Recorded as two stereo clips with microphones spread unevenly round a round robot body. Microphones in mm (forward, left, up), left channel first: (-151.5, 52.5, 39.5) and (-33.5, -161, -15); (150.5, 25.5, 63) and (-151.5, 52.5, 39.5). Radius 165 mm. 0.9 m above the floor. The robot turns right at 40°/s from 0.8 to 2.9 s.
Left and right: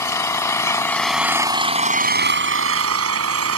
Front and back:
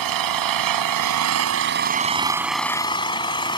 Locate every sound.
0.0 s an engine running: 165° right; by 3.6 s 80° right